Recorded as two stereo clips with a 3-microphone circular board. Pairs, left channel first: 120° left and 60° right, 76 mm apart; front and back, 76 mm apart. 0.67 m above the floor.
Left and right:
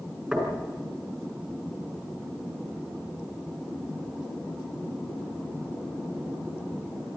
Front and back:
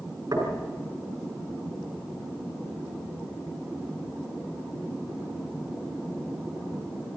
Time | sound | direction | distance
0.3 | knocking | 145° right | 6.5 m